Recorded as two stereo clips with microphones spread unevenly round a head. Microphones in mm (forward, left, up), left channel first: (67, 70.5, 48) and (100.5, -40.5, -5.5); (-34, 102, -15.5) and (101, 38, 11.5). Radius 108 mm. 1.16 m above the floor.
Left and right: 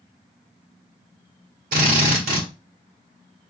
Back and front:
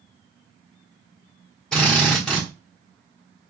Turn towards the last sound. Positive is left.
turn(degrees=-115)